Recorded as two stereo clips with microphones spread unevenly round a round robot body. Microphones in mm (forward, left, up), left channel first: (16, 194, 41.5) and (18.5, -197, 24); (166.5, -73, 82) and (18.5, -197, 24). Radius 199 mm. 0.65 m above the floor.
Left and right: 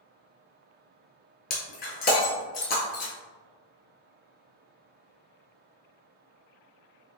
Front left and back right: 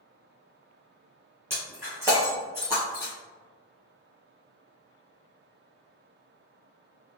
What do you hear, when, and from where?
1.5 s breaking glass: 110° left, 0.6 m